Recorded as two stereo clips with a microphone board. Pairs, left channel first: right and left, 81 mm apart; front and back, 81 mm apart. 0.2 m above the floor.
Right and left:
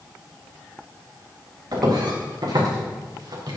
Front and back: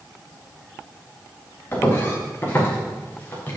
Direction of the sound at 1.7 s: 60° left.